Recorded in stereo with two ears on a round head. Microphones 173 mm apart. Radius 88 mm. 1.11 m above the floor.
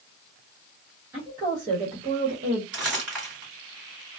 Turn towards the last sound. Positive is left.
turn(degrees=-5)  # may be behind; listen again after turning